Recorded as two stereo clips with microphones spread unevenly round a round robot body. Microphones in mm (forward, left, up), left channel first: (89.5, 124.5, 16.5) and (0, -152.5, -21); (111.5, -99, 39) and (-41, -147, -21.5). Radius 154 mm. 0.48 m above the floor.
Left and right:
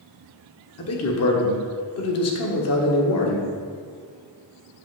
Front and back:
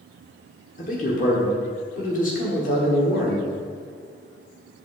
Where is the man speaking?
70° left, 1.5 m.